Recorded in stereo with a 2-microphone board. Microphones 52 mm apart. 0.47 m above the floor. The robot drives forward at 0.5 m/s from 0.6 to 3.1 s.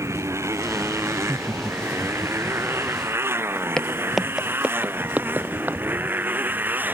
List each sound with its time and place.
0.0 s a motorcycle: 65° right (ahead or behind); by 6.9 s 35° right (ahead or behind)
1.1 s laughter: 40° right (ahead or behind); by 2.6 s 30° right (ahead or behind)
3.8 s footsteps: 15° left (ahead or behind); by 5.8 s 40° right (ahead or behind)